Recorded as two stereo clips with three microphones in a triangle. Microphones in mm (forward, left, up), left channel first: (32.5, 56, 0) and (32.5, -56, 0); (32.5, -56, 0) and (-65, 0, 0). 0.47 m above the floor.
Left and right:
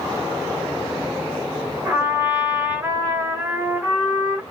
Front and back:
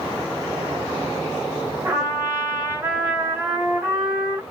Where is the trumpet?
145° right, 1.4 m.